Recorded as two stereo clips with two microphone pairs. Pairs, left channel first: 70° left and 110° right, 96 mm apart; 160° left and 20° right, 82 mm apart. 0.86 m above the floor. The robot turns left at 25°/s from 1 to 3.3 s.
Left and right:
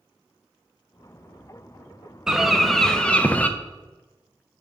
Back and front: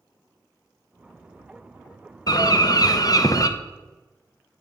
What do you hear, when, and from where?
2.3 s a bird: 165° left, 0.5 m; by 3.5 s 140° left, 0.5 m